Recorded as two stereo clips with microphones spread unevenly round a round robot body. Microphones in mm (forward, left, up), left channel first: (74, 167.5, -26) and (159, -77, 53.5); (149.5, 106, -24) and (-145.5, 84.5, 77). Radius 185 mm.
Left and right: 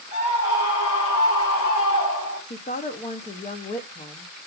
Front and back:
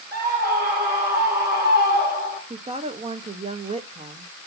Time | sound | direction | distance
0.1 | a scream | 120° left | 2.5 m
2.5 | a woman speaking | 100° left | 0.8 m